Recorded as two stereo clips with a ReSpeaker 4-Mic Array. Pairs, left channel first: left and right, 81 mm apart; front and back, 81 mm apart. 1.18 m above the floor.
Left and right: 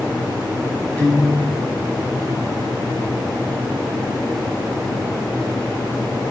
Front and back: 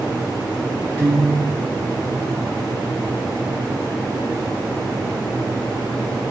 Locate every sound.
1.0 s a guitar: 30° left, 1.2 m